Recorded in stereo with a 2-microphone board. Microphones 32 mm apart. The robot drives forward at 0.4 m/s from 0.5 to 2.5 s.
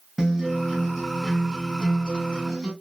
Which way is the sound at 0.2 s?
10° right (ahead or behind).